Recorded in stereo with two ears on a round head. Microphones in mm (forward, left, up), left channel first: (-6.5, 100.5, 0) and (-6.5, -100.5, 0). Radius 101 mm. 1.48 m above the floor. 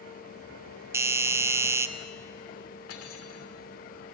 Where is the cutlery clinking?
70° left (ahead or behind), 2.5 m.